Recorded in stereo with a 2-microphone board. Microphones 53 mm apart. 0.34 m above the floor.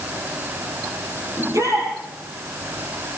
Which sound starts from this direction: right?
A shout, at 1.4 s.